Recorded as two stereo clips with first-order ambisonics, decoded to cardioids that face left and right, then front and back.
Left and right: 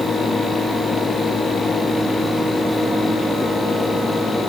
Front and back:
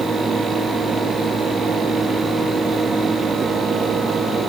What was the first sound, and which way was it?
Only background noise.